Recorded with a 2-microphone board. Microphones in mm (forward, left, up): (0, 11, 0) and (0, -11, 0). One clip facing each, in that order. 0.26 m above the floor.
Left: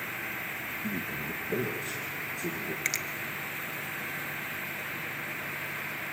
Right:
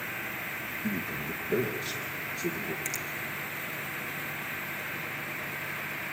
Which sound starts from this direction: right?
A man speaking, at 0.8 s.